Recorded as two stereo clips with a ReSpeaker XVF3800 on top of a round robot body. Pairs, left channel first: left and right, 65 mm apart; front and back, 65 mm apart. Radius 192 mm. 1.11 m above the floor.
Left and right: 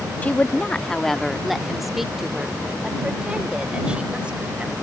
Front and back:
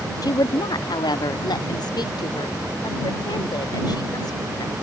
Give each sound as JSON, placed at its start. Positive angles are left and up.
{"t": 0.2, "sound": "a woman speaking", "azimuth_deg": 20}